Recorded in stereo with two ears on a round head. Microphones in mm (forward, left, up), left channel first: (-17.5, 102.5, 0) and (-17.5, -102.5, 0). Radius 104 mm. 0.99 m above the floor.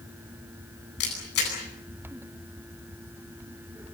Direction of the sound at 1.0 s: 50° left (ahead or behind).